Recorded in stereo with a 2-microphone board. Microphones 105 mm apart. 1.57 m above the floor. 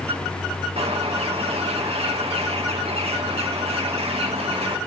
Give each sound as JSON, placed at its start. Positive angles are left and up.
{"t": 0.8, "sound": "a bird", "side_deg": -75, "distance_m": 1.4}